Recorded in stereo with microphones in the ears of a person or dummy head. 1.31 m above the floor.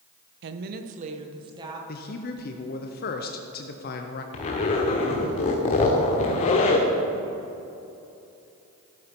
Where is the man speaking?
45° left (ahead or behind), 0.7 m.